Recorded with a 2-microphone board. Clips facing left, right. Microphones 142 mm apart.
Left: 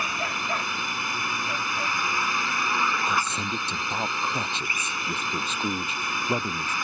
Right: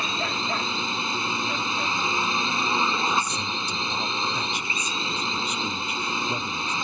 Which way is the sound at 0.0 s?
25° right (ahead or behind).